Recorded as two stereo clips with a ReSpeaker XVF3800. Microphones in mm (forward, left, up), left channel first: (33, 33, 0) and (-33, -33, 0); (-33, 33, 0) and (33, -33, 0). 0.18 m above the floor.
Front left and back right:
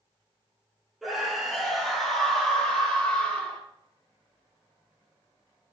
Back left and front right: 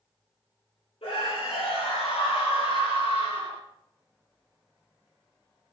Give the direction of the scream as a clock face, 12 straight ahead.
7 o'clock.